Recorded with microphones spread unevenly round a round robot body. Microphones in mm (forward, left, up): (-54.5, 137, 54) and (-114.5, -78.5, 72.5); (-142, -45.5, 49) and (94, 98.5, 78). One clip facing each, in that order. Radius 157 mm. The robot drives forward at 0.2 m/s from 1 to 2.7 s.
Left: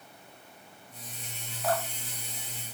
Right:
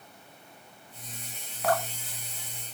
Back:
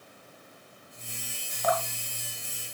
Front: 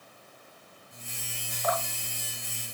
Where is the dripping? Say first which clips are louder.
Right 2 dB, back 2 dB; 130° right, 1.7 m.